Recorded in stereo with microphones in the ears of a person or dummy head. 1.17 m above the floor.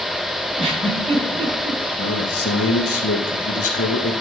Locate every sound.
0.6 s a giggle: 30° right (ahead or behind), 5.5 m
2.0 s a man speaking: 65° left (ahead or behind), 1.8 m